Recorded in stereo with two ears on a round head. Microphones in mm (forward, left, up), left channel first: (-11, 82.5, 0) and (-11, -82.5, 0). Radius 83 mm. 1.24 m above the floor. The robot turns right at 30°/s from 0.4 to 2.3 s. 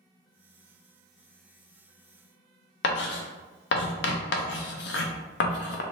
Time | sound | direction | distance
2.8 | writing | 65° left (ahead or behind) | 0.5 m